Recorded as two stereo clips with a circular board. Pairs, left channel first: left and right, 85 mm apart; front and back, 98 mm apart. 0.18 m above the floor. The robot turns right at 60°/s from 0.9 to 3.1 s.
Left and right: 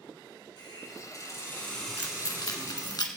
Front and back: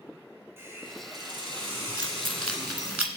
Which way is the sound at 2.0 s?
45° left.